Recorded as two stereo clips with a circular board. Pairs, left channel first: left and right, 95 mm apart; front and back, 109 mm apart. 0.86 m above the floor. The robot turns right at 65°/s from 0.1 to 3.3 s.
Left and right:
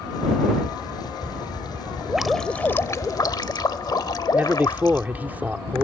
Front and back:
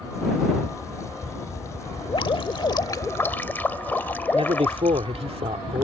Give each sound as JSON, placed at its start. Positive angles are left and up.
{"t": 2.1, "sound": "dripping", "azimuth_deg": -10}
{"t": 4.3, "sound": "a man speaking", "azimuth_deg": -160}